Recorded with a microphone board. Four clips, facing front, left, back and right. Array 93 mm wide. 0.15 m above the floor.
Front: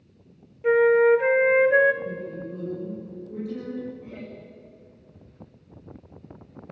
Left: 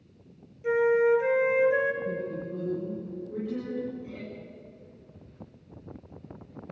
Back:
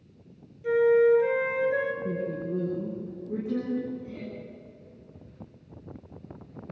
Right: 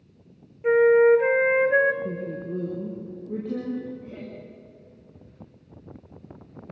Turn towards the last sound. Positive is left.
turn(degrees=-40)